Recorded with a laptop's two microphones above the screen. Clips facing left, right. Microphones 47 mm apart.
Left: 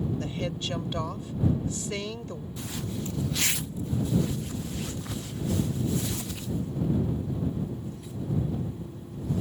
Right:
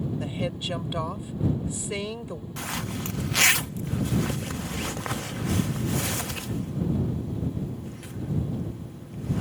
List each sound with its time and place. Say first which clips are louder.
0.2 s a woman speaking: right 2 dB; 15° right (ahead or behind)
2.6 s a zipper: right 3 dB; 70° right (ahead or behind)